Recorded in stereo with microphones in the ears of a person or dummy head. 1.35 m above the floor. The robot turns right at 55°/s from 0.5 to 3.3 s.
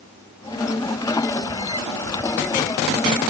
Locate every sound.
Only background noise.